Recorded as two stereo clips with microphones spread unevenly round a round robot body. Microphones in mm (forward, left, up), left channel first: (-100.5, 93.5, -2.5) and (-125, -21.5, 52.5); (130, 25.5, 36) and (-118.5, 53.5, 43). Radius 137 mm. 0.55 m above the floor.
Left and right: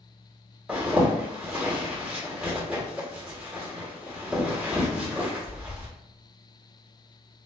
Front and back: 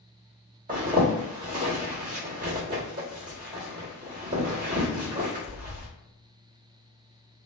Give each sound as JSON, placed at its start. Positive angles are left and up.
{"t": 0.7, "sound": "a zipper", "azimuth_deg": 140, "distance_m": 1.4}